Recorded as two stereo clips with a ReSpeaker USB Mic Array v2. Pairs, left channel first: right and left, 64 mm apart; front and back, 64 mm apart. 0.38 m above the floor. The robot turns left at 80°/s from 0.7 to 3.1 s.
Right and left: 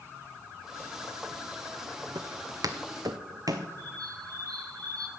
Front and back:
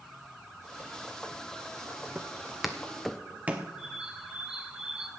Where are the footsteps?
100° left, 1.2 m; by 3.7 s 120° left, 1.4 m.